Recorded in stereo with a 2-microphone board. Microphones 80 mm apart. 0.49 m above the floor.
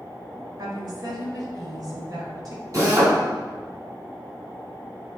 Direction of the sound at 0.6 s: 60° right (ahead or behind).